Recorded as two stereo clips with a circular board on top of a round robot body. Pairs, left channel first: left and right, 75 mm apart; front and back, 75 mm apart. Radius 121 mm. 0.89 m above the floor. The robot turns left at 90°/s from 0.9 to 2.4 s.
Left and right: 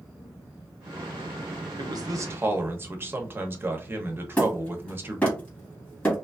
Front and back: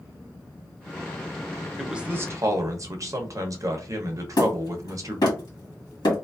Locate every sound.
1.8 s a man speaking: 90° right, 0.8 m; by 5.4 s 145° right, 0.8 m
4.4 s hammering: 20° left, 1.5 m